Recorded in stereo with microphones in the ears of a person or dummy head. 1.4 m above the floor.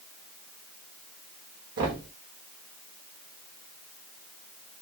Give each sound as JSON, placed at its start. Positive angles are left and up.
{"t": 1.8, "sound": "knocking", "side_deg": -50, "distance_m": 1.2}